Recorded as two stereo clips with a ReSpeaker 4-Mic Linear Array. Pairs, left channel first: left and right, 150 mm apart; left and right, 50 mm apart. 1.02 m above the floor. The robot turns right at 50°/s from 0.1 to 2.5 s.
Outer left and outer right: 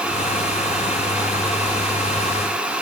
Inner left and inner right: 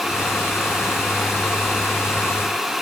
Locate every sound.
Only background noise.